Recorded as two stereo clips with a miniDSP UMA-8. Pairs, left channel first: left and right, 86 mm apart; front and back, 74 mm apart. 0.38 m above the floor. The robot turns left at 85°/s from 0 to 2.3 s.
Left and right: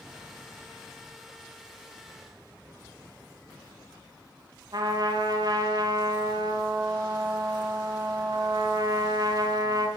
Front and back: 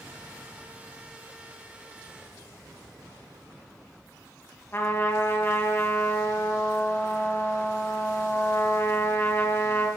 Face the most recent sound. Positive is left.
turn(degrees=-60)